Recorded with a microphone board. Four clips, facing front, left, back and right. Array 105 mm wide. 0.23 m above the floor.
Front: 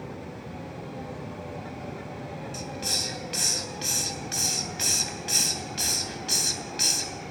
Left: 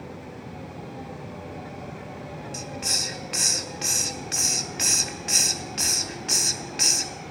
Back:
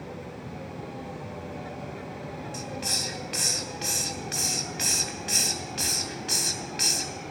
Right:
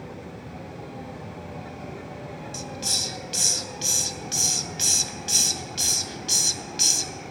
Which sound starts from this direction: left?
A hiss, at 2.5 s.